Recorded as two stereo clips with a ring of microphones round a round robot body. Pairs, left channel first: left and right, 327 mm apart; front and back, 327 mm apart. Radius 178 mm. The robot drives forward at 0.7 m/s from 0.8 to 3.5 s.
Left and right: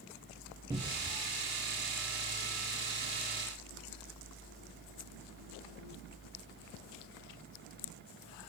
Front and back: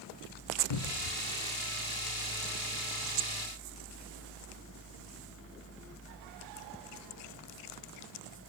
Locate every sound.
0.7 s a cupboard door: 10° right, 0.9 m; by 1.2 s 15° right, 0.7 m